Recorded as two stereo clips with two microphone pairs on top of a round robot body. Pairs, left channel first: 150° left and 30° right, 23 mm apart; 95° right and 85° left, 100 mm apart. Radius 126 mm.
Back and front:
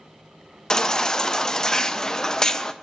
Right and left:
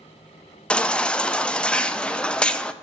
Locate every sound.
0.7 s a baby crying: 145° right, 0.5 m